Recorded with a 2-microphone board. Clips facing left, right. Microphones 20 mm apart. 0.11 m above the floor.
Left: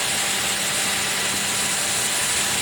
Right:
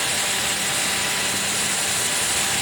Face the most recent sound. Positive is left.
No sound to turn to.